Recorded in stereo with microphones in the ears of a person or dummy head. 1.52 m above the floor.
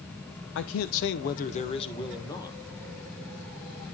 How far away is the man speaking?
About 0.6 m.